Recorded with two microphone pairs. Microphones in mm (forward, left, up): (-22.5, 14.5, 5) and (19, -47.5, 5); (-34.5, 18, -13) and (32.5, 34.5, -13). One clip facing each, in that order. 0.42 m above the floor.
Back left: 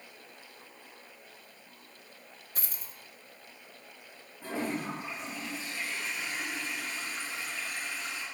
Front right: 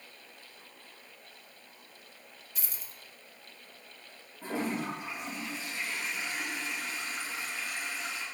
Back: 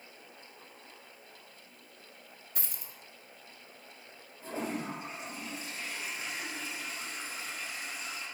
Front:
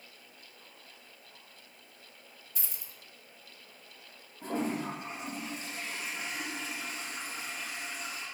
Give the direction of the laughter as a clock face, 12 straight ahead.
I don't hear laughter.